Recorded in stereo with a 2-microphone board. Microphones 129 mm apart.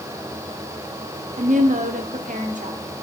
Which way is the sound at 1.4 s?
80° right.